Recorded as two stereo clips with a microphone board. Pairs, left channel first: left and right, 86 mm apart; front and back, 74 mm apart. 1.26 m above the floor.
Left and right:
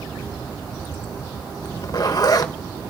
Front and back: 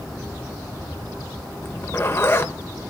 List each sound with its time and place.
1.6 s a zipper: 50° left, 0.7 m